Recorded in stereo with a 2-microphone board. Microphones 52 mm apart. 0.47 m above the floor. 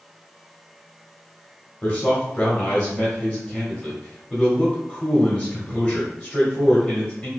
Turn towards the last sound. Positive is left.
turn(degrees=15)  # may be behind; listen again after turning